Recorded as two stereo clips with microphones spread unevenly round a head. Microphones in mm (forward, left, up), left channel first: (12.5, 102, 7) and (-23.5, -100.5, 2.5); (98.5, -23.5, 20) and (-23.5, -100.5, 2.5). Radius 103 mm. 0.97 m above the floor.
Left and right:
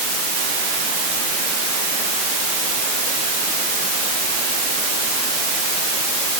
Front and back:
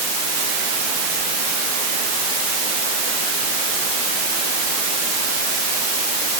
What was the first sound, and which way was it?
Only background noise.